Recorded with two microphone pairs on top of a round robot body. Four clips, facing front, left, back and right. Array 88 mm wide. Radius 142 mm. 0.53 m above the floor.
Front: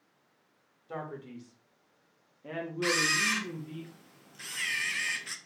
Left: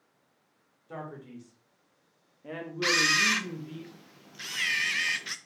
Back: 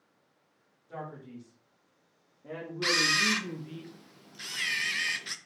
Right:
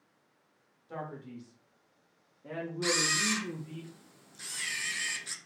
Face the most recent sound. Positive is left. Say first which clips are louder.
# left 5 dB, back 1 dB
turn(degrees=110)